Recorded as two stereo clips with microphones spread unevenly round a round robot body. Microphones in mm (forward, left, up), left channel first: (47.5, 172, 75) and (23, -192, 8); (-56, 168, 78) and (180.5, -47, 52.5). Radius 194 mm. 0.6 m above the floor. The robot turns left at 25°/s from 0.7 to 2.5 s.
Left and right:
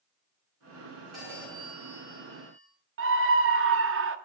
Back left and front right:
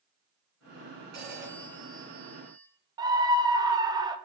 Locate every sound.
1.1 s a phone ringing: 5° right, 4.5 m; by 2.7 s 40° right, 4.5 m
3.0 s a scream: 110° right, 0.9 m